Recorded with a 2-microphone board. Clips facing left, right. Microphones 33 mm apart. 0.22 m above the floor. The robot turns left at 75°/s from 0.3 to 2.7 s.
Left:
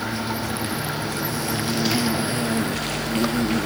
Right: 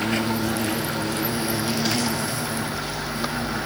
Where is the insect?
65° right, 3 m; by 3.7 s 115° left, 3 m.